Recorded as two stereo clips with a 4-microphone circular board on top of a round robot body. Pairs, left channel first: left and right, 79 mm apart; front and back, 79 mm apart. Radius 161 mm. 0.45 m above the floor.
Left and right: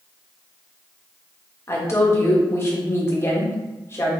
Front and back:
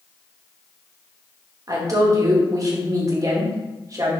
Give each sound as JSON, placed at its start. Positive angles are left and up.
{"t": 1.7, "sound": "a woman speaking", "azimuth_deg": 140, "distance_m": 1.6}